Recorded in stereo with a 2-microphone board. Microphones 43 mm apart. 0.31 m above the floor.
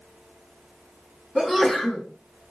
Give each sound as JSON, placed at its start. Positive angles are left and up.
{"t": 1.4, "sound": "a sneeze", "side_deg": -5, "distance_m": 3.5}